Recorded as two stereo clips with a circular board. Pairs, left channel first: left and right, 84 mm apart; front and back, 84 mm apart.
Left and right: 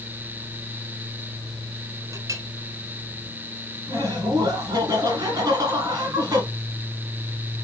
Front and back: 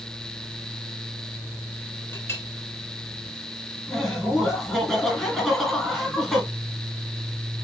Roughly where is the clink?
Ahead right.